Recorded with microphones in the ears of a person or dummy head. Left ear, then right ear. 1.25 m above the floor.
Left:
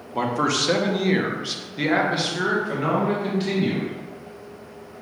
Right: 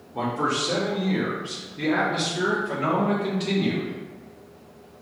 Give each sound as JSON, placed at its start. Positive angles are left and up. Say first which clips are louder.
{"t": 0.1, "sound": "a man speaking", "louder": "left 3 dB", "side_deg": 70, "distance_m": 1.0}